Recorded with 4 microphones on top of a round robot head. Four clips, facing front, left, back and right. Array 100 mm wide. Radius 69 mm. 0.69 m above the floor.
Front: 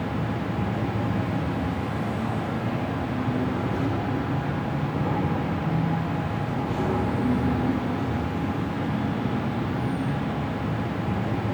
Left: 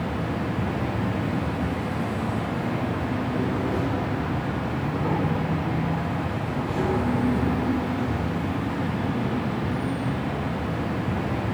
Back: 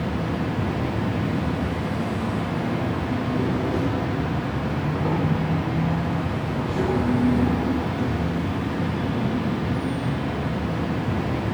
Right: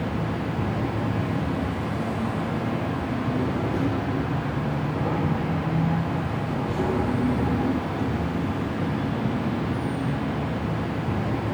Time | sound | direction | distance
0.0 | an insect | 140° left | 1.4 m